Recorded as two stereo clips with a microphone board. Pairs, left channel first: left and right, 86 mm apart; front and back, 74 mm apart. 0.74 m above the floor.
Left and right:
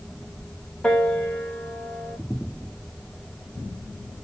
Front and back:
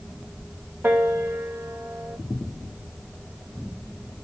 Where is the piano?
150° left, 0.9 m.